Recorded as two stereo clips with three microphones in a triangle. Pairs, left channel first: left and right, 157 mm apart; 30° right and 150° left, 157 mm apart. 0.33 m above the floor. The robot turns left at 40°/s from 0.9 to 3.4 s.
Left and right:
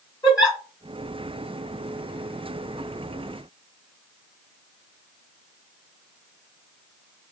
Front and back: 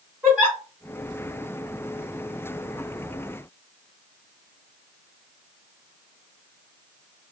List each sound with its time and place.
0.2 s a giggle: 85° left, 1.4 m